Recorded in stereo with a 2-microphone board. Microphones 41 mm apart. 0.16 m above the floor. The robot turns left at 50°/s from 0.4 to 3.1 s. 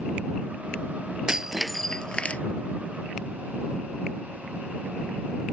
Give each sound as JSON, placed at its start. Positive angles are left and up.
{"t": 1.3, "sound": "breaking glass", "azimuth_deg": -160}